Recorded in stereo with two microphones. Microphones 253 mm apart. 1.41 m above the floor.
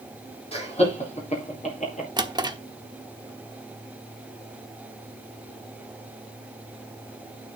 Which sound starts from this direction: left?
Laughter, at 0.5 s.